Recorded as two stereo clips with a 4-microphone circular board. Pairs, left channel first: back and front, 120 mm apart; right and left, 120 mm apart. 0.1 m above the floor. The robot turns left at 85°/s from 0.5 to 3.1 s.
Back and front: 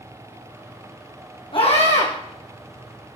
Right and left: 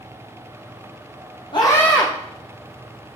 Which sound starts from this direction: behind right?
A scream, at 1.5 s.